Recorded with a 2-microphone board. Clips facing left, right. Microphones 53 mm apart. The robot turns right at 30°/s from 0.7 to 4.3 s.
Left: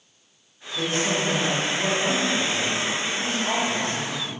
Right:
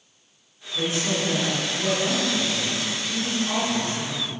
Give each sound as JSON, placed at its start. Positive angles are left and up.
{"t": 0.7, "sound": "a woman speaking", "side_deg": 0, "distance_m": 1.4}